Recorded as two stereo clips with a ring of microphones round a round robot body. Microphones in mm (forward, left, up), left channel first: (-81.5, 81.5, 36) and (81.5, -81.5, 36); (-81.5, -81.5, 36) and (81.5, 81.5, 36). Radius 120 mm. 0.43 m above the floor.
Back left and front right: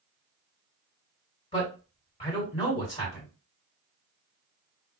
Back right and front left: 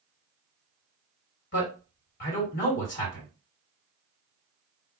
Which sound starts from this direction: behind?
A man speaking, at 1.5 s.